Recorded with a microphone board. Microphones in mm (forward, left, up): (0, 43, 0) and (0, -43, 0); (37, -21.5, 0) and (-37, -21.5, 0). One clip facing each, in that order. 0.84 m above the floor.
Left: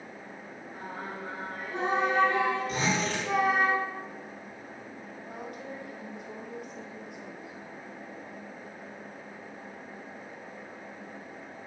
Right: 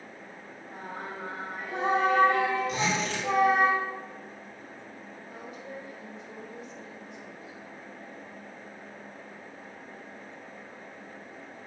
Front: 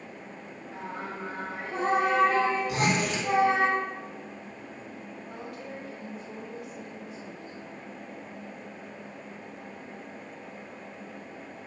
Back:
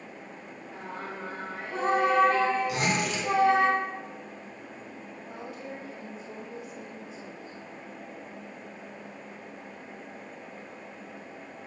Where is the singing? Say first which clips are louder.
Right 1 dB, front 1 dB; 80° right, 2.5 m.